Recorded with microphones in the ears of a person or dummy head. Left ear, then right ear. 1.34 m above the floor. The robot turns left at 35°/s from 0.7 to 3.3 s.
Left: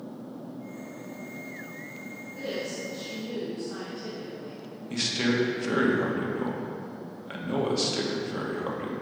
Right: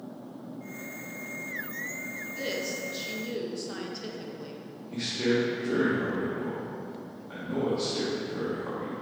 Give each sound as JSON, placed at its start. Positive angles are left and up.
{"t": 2.3, "sound": "a woman speaking", "azimuth_deg": -30, "distance_m": 1.3}
{"t": 4.9, "sound": "a man speaking", "side_deg": 70, "distance_m": 1.3}